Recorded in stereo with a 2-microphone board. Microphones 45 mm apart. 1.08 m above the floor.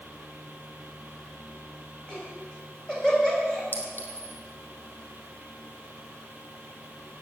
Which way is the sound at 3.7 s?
55° left (ahead or behind).